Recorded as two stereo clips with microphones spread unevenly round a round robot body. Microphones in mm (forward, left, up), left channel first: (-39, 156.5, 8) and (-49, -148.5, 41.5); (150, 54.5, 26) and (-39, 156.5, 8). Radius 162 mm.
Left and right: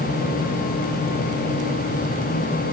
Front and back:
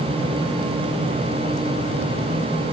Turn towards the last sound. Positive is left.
No sound to turn to.